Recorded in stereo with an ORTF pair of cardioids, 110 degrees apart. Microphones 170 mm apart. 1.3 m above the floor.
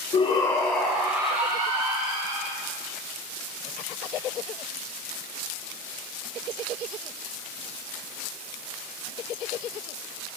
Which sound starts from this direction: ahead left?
A shout, at 0.1 s.